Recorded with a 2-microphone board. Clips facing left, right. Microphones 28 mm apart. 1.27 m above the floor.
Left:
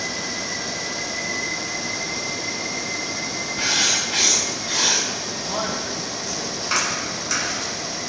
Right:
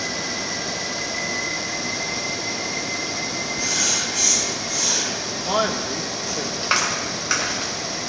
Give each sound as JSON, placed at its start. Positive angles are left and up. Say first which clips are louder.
{"t": 3.6, "sound": "writing", "louder": "left 4 dB", "side_deg": 70, "distance_m": 6.5}
{"t": 5.3, "sound": "a man speaking", "louder": "right 4 dB", "side_deg": -75, "distance_m": 1.4}
{"t": 6.6, "sound": "a clap", "louder": "right 2 dB", "side_deg": -35, "distance_m": 4.0}